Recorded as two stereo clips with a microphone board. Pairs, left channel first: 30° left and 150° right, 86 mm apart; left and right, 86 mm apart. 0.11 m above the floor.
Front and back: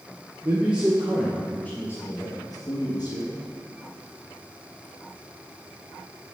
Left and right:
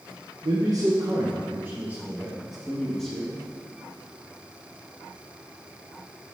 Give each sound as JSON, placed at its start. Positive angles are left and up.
{"t": 0.4, "sound": "a man speaking", "azimuth_deg": -85, "distance_m": 1.9}